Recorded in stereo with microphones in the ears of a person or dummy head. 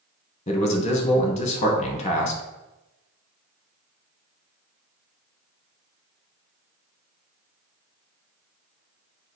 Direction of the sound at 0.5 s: 30° left (ahead or behind).